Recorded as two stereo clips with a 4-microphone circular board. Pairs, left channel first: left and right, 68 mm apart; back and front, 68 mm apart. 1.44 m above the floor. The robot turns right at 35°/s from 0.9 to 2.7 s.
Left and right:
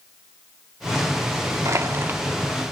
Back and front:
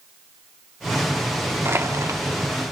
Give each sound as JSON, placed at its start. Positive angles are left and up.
{"t": 1.6, "sound": "crushing", "azimuth_deg": -50, "distance_m": 1.8}